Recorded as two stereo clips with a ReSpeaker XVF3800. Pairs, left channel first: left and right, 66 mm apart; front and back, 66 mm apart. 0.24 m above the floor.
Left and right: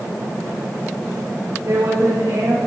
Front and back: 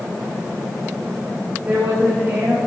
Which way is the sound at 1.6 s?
115° right.